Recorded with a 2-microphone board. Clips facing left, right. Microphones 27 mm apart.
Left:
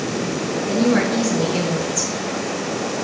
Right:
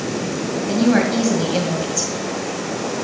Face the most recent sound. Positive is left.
turn(degrees=-35)  # may be behind; listen again after turning